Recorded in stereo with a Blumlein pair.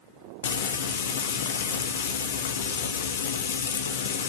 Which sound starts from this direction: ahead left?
Frying, at 0.4 s.